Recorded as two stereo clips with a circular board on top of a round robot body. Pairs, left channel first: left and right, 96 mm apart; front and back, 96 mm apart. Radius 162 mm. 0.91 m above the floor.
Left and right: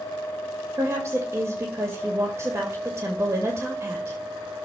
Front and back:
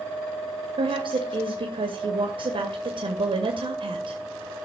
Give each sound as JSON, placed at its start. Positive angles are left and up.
{"t": 0.8, "sound": "a woman speaking", "azimuth_deg": -155, "distance_m": 2.5}